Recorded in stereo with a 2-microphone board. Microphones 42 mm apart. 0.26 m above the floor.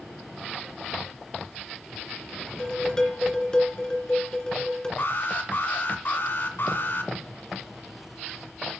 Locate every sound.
2.6 s dishes clattering: 20° left (ahead or behind), 2.5 m
5.0 s an alarm: 60° left (ahead or behind), 2 m